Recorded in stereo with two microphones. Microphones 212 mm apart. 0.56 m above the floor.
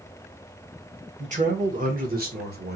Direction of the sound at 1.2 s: 35° right (ahead or behind).